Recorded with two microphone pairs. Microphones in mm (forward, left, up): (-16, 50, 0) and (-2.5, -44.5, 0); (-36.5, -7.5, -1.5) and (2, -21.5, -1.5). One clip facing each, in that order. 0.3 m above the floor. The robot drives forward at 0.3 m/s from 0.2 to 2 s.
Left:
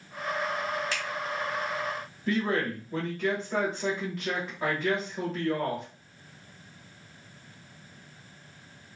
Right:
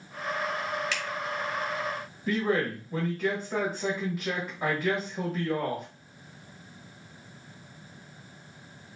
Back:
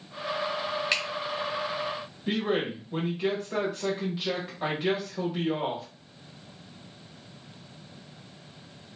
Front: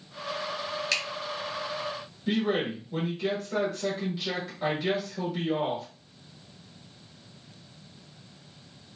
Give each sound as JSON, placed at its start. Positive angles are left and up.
{"t": 0.9, "sound": "a finger snap", "azimuth_deg": 115, "distance_m": 0.9}
{"t": 2.3, "sound": "a man speaking", "azimuth_deg": -155, "distance_m": 1.0}